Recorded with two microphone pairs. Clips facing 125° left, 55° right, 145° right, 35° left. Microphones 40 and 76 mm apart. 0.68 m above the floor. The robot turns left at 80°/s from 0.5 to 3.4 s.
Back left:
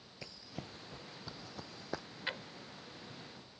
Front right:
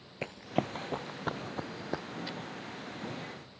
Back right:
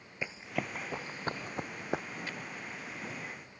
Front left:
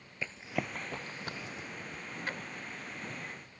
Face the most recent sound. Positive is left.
turn(degrees=-15)